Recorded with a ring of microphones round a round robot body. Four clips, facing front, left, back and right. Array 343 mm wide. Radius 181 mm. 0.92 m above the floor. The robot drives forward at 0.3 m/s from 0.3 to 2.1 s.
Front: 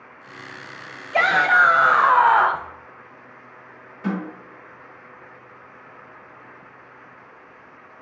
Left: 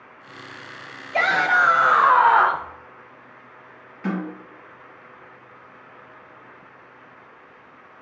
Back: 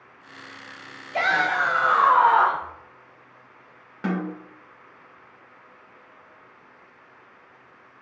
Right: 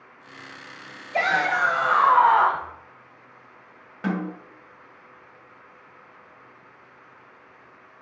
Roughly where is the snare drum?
Behind right.